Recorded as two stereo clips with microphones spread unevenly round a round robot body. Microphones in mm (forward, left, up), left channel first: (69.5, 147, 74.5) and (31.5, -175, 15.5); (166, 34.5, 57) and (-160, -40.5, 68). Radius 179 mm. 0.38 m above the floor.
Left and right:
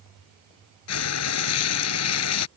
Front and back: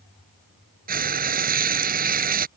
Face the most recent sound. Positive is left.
turn(degrees=130)